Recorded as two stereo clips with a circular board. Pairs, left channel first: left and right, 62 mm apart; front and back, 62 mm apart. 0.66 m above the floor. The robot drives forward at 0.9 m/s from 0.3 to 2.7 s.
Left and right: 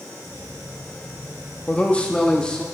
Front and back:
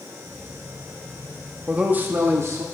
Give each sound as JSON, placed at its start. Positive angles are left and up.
{"t": 1.7, "sound": "a man speaking", "azimuth_deg": 130, "distance_m": 0.9}